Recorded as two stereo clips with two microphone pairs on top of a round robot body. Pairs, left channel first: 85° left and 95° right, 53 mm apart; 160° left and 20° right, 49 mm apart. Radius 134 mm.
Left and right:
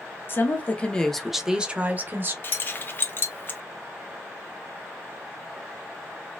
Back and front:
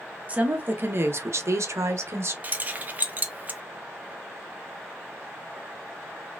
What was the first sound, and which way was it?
A woman speaking, 40° left.